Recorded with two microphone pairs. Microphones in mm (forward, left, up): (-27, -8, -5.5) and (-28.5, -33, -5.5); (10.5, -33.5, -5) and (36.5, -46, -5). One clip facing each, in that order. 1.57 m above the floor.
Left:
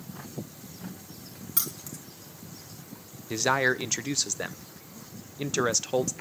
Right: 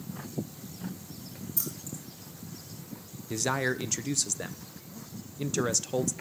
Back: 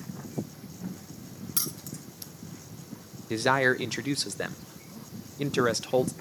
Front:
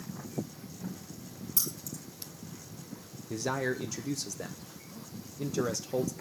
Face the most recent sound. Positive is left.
turn(degrees=155)